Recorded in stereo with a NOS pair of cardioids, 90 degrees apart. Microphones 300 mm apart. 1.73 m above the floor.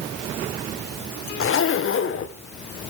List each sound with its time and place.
1.4 s a zipper: 45° left, 1.8 m